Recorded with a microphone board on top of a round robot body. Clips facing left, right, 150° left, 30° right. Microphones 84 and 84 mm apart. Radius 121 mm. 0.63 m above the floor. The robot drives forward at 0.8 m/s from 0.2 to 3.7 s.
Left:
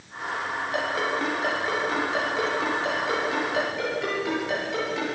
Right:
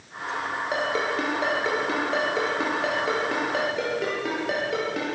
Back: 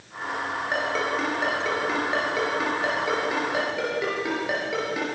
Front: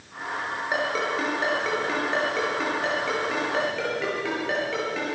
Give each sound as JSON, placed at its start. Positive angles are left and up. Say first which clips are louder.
{"t": 0.7, "sound": "a ringtone", "louder": "right 1 dB, even", "azimuth_deg": -115, "distance_m": 6.5}